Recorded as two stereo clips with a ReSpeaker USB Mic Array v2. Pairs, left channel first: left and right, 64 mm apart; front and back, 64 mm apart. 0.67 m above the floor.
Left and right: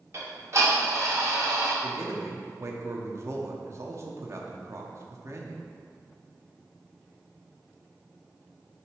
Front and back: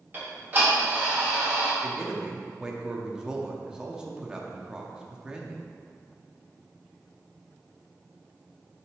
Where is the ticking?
130° right, 2 m.